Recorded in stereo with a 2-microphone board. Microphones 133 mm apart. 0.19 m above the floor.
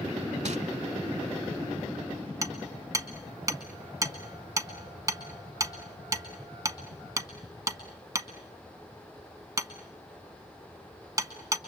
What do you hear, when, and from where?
0.5 s crumpling: 60° right (ahead or behind), 0.7 m
2.4 s hammering: 25° right (ahead or behind), 1.2 m